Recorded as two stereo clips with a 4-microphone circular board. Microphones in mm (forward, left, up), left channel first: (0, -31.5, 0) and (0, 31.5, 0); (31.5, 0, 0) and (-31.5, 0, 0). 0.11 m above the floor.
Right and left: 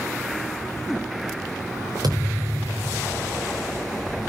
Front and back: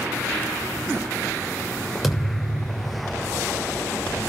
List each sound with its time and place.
2.0 s a thud: 90° left, 7 m